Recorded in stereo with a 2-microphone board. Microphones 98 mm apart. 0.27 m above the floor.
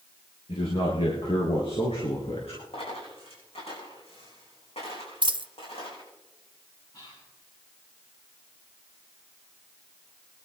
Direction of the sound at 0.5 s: 70° left (ahead or behind).